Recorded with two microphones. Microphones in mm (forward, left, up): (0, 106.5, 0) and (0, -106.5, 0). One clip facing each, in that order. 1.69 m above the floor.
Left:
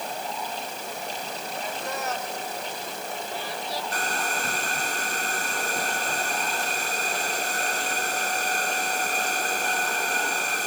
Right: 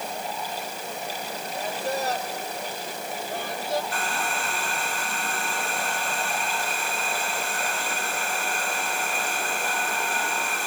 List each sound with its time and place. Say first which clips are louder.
1.5 s a man speaking: right 5 dB; 30° right (ahead or behind); by 3.8 s 50° right (ahead or behind)
3.9 s a hair dryer: even; 40° left (ahead or behind)